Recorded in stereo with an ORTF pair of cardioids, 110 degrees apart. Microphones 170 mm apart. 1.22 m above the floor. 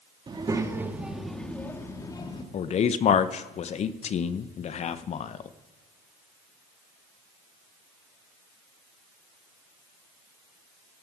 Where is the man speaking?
40° left, 0.7 m.